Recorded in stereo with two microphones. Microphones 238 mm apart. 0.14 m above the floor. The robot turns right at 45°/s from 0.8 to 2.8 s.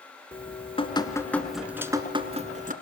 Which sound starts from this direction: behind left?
Dripping, at 0.3 s.